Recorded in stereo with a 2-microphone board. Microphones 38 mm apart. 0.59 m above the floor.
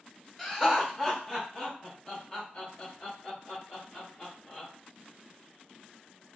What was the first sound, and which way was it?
Laughter, centre (ahead or behind).